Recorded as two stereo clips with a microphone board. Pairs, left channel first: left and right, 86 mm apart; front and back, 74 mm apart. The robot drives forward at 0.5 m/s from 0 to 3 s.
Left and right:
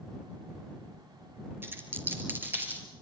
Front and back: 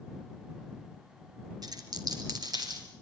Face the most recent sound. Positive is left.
turn(degrees=-160)